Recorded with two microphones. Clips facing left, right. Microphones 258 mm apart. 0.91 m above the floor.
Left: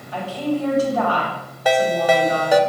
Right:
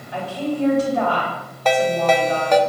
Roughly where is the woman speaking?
Centre.